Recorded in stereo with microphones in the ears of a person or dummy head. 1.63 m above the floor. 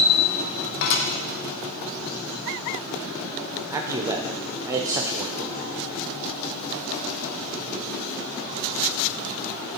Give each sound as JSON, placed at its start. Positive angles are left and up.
{"t": 0.8, "sound": "dishes clattering", "side_deg": 55, "distance_m": 1.2}
{"t": 3.7, "sound": "a man speaking", "side_deg": -10, "distance_m": 0.5}